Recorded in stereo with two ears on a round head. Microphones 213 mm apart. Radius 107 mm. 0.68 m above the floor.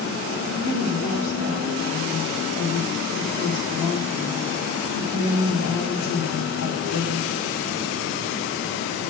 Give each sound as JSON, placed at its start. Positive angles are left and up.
{"t": 0.6, "sound": "a woman speaking", "side_deg": 60, "distance_m": 1.9}